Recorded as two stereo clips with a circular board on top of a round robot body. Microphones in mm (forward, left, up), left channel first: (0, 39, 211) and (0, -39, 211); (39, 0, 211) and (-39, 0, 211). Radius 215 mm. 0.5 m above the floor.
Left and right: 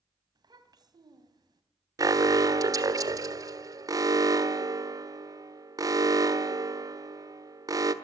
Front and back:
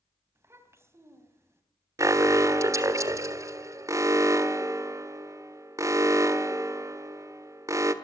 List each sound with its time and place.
0.3 s a child speaking: 125° right, 3 m
2.0 s an alarm: 130° right, 1.5 m